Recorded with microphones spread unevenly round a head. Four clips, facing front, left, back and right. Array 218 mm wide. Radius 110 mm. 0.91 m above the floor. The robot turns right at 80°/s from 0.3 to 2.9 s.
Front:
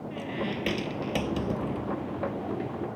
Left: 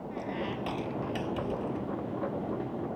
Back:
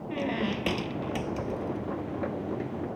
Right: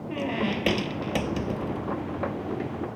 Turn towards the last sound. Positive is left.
turn(degrees=75)